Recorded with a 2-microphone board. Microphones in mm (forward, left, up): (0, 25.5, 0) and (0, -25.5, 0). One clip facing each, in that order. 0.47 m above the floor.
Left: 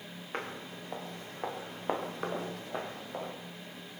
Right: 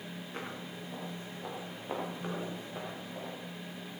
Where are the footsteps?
60° left (ahead or behind), 7 m; by 3.3 s 80° left, 7.5 m.